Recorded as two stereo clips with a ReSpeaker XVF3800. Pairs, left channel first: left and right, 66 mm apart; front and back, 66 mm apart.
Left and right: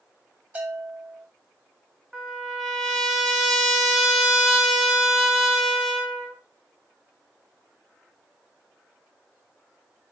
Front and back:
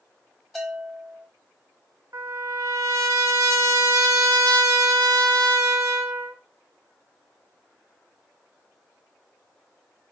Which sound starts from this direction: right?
A bell, at 0.6 s.